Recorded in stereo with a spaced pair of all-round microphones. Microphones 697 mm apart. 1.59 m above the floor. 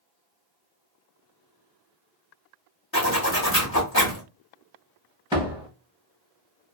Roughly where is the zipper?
Left.